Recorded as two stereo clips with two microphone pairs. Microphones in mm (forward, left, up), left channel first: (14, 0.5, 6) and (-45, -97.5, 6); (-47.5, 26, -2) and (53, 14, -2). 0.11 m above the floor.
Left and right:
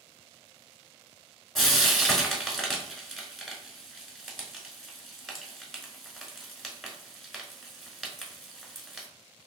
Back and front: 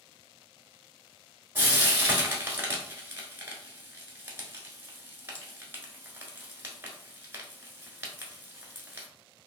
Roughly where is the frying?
Ahead right.